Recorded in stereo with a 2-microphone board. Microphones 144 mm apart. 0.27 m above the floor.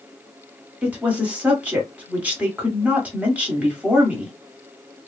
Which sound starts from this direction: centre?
A woman speaking, at 0.8 s.